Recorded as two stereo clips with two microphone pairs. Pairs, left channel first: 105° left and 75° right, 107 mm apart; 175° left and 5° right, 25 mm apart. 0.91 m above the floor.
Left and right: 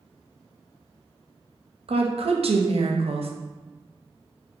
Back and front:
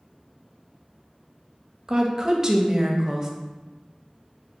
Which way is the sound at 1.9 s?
60° right.